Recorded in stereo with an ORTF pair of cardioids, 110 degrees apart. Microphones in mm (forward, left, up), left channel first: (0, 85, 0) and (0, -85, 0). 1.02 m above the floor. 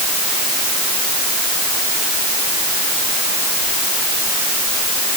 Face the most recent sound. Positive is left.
No sound to turn to.